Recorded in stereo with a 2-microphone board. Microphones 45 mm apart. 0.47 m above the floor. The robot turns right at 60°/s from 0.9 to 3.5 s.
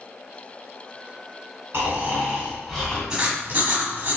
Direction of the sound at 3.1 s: 20° right (ahead or behind).